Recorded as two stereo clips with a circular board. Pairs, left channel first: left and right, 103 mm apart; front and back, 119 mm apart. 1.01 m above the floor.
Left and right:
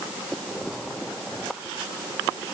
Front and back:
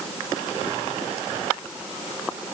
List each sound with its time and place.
Only background noise.